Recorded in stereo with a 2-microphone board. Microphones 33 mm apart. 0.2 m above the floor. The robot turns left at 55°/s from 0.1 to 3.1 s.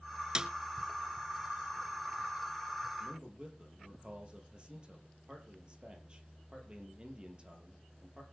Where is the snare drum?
25° right (ahead or behind), 0.9 m; by 0.5 s 30° right (ahead or behind), 0.9 m.